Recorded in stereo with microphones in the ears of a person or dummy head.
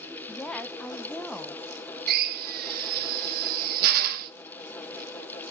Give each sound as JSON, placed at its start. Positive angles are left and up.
{"t": 0.3, "sound": "a woman speaking", "side_deg": 5, "distance_m": 0.6}
{"t": 2.1, "sound": "a drill", "side_deg": -55, "distance_m": 1.0}